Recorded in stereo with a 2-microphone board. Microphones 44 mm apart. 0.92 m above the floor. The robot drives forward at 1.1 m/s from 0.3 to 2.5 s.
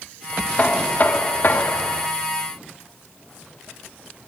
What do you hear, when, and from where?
0.6 s knocking: 30° left (ahead or behind), 2.5 m; by 2.1 s 65° left (ahead or behind), 1.4 m